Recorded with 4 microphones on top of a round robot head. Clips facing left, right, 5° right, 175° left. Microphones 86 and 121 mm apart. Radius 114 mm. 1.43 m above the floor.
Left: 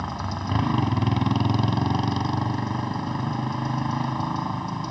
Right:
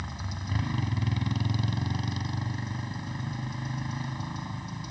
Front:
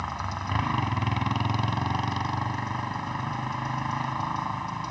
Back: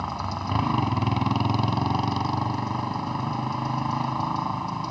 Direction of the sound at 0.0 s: 115° left.